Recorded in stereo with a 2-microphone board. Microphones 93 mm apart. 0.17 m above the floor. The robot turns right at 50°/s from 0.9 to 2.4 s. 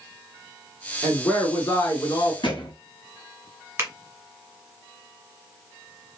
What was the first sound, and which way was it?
A woman speaking, 15° left.